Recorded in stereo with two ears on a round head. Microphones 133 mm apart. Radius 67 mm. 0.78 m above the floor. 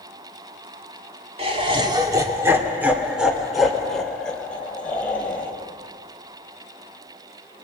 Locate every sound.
1.4 s laughter: 40° right (ahead or behind), 1.8 m; by 5.5 s 15° left (ahead or behind), 4 m